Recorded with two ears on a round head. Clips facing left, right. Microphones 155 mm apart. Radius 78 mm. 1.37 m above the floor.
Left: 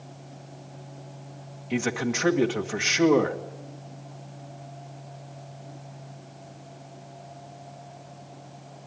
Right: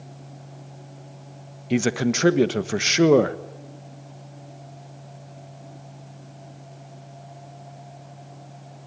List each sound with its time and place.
1.7 s a man speaking: 50° right (ahead or behind), 1.5 m